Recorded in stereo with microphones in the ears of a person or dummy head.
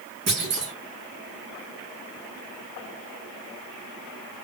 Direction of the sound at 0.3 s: 55° right (ahead or behind).